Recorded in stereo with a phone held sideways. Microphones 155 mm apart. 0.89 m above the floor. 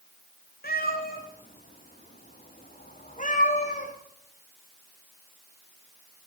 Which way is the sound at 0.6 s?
80° left.